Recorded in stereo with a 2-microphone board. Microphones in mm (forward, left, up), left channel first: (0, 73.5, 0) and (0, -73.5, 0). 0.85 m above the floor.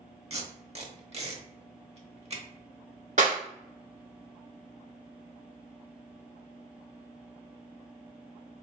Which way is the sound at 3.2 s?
55° right (ahead or behind).